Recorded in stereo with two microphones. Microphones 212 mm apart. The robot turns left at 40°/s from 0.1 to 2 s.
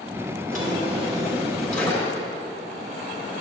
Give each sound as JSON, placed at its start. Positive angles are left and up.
{"t": 0.5, "sound": "a drawer", "azimuth_deg": -135, "distance_m": 2.5}